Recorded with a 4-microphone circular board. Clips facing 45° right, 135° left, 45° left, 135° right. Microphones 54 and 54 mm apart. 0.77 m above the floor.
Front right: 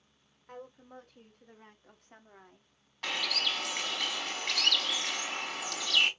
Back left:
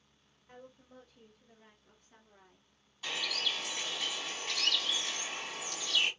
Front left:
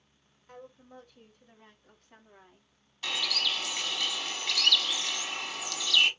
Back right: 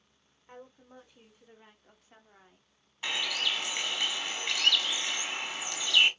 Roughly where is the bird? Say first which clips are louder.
Front right 3 dB, even; right.